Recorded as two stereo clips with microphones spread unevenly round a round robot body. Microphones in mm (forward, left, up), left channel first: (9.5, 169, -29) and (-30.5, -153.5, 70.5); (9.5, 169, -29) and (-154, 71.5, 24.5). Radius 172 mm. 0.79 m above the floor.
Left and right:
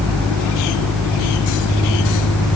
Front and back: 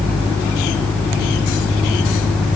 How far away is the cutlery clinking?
No cutlery clinking in this recording.